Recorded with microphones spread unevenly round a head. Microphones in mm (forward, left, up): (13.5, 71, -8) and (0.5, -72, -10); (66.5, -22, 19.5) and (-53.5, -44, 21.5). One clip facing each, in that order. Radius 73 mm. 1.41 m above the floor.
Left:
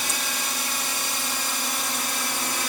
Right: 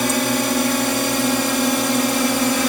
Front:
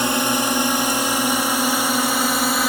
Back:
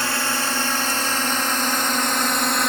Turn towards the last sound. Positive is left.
turn(degrees=-75)